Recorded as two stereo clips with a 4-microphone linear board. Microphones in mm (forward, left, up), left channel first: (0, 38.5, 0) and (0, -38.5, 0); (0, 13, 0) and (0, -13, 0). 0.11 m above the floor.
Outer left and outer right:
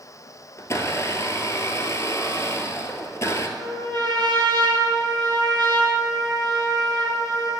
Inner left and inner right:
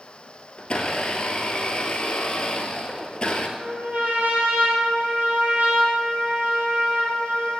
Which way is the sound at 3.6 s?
65° right (ahead or behind).